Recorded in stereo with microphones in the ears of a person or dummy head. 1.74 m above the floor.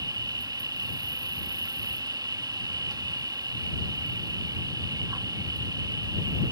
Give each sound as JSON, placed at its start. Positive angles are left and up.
{"t": 0.0, "sound": "an insect", "side_deg": -15}